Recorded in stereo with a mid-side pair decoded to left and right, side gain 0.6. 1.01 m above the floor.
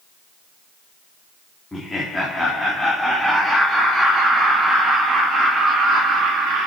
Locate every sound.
1.7 s laughter: 15° left, 2.5 m; by 6.7 s 60° right, 2 m